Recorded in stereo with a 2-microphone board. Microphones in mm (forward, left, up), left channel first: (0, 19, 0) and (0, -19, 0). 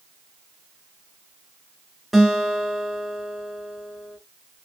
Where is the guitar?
Centre (ahead or behind), 1.0 m.